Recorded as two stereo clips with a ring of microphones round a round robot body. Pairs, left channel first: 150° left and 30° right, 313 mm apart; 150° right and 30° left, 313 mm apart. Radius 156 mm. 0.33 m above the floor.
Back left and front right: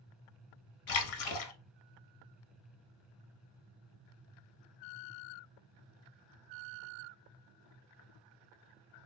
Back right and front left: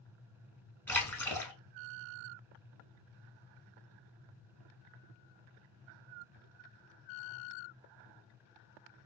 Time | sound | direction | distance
0.9 | a splash | 125° left | 0.7 m